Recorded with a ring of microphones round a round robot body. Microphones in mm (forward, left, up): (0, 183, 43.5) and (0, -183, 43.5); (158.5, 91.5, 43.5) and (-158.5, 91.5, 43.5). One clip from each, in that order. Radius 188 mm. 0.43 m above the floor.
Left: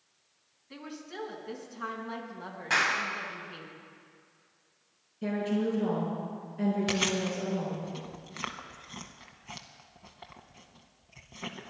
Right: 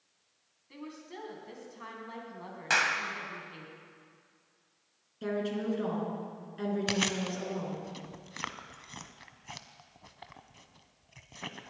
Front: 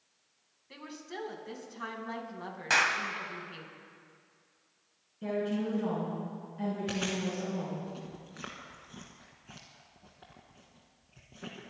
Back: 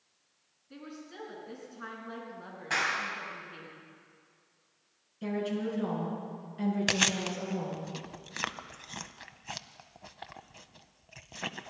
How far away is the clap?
About 2 m.